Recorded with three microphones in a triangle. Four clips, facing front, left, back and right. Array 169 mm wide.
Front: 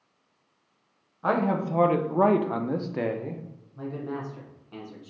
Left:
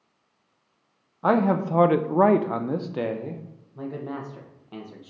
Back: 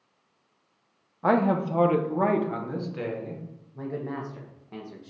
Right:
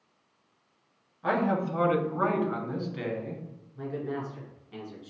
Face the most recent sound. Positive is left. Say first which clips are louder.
# left 1 dB, back 1 dB
turn(degrees=125)